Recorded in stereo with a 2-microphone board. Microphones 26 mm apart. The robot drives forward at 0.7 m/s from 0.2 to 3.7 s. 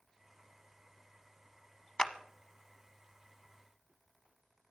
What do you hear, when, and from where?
2.0 s a clap: 30° left (ahead or behind), 0.8 m